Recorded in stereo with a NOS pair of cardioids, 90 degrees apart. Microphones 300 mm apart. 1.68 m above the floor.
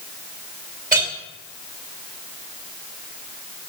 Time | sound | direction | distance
0.9 | a clink | 30° right | 2.5 m